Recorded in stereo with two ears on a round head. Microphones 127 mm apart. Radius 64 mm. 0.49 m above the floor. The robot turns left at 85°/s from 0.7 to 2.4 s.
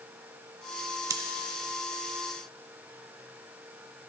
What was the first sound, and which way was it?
Scissors, 25° right (ahead or behind).